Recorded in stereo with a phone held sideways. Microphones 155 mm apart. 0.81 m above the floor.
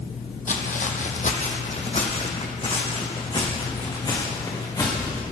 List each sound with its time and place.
0.5 s footsteps: 55° left (ahead or behind), 1.3 m; by 5.2 s 25° left (ahead or behind), 3.5 m